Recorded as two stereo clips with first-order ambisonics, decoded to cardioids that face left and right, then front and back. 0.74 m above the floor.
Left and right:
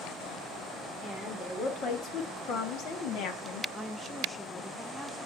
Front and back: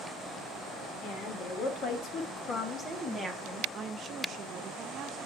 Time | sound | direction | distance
1.0 | a woman speaking | 25° left | 1.9 m
3.7 | a woman speaking | 165° left | 0.8 m